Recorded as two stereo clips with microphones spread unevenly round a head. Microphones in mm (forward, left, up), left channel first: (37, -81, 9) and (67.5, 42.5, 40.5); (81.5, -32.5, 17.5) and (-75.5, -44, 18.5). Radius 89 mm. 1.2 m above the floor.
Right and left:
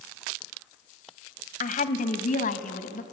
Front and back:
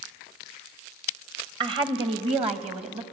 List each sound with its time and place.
1.6 s a woman speaking: 115° right, 1.1 m; by 3.0 s 125° right, 2 m